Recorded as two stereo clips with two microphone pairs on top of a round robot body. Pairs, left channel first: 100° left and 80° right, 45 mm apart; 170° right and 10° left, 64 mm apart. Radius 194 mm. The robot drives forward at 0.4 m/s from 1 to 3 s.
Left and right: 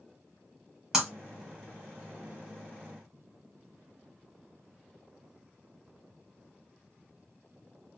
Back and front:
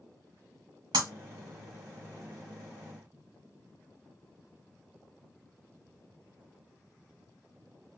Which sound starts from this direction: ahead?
Breaking glass, at 0.9 s.